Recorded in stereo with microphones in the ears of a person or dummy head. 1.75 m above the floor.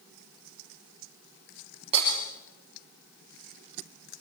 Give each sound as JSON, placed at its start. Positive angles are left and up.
{"t": 1.9, "sound": "breaking glass", "side_deg": -35, "distance_m": 7.0}